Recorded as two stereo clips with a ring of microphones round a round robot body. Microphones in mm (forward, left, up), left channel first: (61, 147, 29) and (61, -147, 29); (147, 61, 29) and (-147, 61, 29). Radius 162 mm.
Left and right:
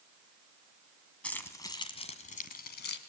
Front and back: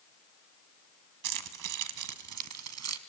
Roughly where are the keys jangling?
Behind.